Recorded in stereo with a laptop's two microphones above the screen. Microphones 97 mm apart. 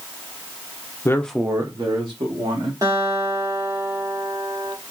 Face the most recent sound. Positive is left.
turn(degrees=-40)  # may be behind; listen again after turning